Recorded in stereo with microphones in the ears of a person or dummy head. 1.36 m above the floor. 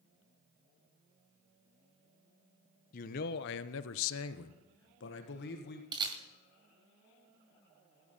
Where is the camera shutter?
25° right (ahead or behind), 2 m.